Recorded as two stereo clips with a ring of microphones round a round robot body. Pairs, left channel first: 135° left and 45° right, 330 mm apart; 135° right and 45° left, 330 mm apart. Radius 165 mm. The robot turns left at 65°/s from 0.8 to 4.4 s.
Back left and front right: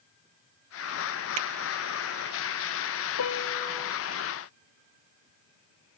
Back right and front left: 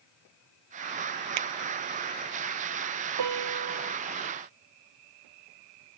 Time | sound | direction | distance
1.4 | a finger snap | 5° left | ?
3.2 | a piano | 90° left | ?